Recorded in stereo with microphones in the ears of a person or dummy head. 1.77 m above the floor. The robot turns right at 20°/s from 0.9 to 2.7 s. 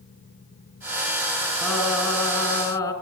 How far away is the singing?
About 4.5 m.